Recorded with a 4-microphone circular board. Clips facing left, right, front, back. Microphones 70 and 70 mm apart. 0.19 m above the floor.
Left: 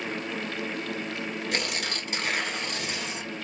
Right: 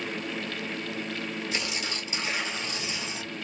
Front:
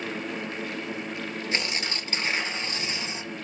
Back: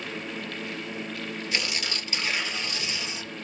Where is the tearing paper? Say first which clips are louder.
Left 2 dB, front 1 dB; 60° left, 1.7 m.